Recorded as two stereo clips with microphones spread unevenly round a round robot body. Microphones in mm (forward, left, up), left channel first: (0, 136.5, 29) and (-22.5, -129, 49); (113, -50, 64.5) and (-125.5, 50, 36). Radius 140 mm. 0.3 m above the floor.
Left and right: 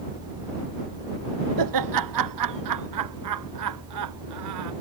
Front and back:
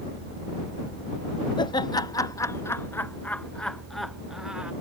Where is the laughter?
95° right; by 4.7 s 115° right.